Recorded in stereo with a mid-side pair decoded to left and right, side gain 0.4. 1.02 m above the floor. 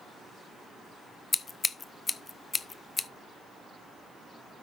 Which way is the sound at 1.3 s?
35° left.